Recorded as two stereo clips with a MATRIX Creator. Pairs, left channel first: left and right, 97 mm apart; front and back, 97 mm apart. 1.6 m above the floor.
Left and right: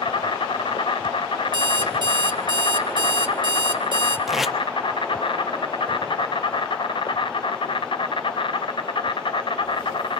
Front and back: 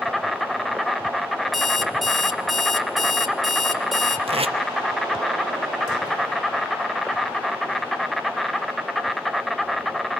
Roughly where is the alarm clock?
Right.